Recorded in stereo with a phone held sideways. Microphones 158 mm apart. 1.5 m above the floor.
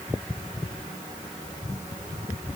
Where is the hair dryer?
No hair dryer in this recording.